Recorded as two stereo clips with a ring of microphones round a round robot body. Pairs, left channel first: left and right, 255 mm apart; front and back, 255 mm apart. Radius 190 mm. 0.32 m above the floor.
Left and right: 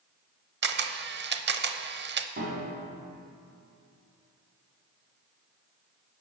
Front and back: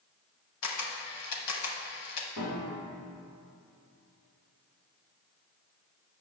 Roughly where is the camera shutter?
Ahead right.